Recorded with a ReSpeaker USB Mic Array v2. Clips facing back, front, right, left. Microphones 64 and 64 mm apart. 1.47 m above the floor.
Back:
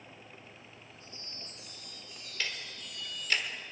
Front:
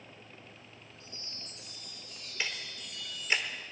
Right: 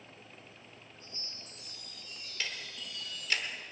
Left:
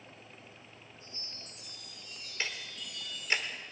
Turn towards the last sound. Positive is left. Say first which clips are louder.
# front 1 dB, left 2 dB
turn(degrees=50)